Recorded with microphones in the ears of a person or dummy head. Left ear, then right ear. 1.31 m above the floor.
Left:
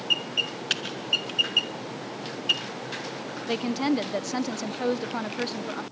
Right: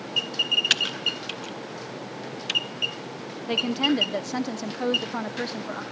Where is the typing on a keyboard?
25° right (ahead or behind), 0.7 m.